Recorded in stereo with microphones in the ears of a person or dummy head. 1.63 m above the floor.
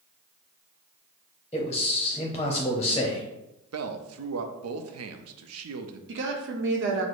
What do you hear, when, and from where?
1.5 s a man speaking: 15° left (ahead or behind), 0.7 m
3.7 s a man speaking: 75° right (ahead or behind), 0.5 m
6.1 s a woman speaking: 55° right (ahead or behind), 0.7 m